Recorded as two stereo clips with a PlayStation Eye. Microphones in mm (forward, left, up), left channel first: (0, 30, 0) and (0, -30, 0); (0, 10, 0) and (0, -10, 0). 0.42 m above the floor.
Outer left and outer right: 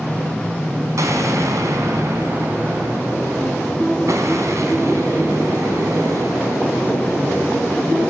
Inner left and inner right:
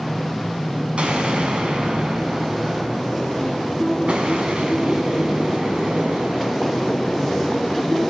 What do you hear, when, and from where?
1.0 s an explosion: 65° right (ahead or behind), 3.5 m